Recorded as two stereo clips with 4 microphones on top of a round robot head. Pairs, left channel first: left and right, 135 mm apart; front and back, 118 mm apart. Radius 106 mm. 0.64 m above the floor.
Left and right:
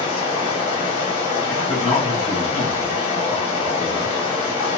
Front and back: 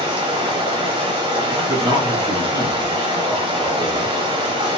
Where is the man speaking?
Straight behind, 1.2 m.